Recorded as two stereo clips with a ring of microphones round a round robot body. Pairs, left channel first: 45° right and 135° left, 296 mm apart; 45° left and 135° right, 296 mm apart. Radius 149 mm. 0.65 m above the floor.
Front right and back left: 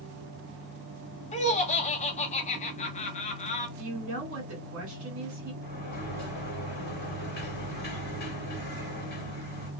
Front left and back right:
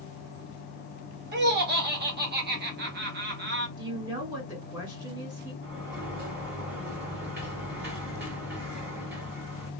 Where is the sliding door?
90° right, 1.8 m.